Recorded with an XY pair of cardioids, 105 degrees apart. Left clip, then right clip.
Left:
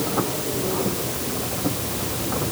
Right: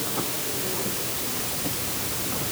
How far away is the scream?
No scream in this recording.